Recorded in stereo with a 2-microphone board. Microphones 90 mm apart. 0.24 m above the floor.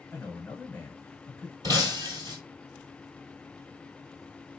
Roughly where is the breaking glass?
Right.